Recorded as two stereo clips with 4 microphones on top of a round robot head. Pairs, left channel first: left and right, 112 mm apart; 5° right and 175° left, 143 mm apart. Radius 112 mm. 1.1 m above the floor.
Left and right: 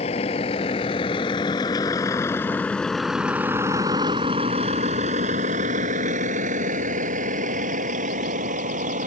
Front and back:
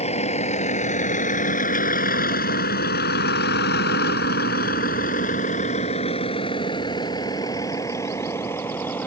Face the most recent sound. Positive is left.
turn(degrees=-85)